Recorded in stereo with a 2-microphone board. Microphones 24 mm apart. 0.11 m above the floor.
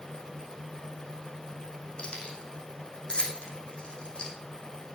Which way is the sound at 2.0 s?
40° left (ahead or behind).